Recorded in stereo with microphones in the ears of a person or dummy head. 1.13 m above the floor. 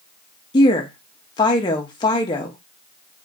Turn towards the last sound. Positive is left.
turn(degrees=25)  # may be behind; listen again after turning